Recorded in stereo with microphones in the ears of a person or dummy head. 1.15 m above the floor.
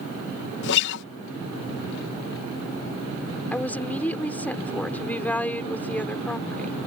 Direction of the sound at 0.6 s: 65° left (ahead or behind).